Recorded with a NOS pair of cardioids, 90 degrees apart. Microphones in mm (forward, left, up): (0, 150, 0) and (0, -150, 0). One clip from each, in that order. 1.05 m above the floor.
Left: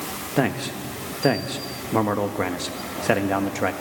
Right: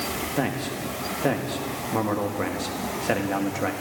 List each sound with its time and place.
0.4 s a man speaking: 25° left, 1.4 m